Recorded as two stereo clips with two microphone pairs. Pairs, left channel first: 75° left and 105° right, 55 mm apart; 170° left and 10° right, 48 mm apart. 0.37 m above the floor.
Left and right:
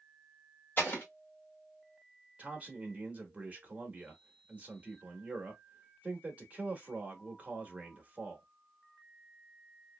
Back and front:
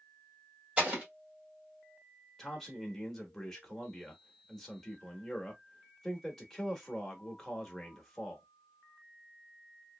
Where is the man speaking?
115° right, 0.8 m.